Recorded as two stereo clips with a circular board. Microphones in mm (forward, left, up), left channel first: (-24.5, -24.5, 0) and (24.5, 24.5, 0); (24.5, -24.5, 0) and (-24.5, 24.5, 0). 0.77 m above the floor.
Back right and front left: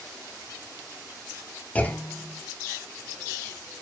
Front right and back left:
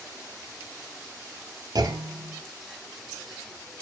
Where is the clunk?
155° left, 1.5 m.